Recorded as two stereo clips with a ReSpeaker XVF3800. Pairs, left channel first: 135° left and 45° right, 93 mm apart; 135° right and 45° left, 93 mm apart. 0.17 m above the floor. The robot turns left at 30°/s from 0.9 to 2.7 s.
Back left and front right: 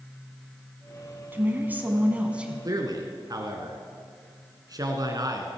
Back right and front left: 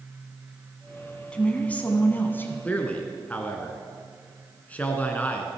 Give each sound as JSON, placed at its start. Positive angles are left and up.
{"t": 1.3, "sound": "a woman speaking", "azimuth_deg": -70, "distance_m": 1.3}
{"t": 2.6, "sound": "a man speaking", "azimuth_deg": -65, "distance_m": 1.6}